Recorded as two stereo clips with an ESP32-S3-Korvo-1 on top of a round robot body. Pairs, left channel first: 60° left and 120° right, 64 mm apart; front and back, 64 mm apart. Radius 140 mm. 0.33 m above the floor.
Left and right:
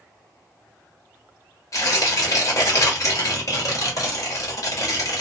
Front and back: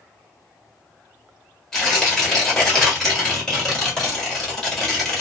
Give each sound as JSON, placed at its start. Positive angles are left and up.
{"t": 1.7, "sound": "tearing paper", "azimuth_deg": 85, "distance_m": 1.4}